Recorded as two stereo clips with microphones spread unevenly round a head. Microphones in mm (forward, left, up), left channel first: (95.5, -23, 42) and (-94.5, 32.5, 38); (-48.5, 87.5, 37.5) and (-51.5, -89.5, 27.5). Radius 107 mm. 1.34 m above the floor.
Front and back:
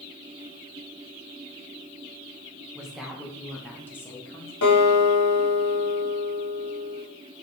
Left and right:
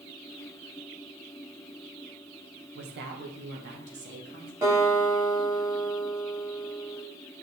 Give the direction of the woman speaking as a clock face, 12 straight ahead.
4 o'clock.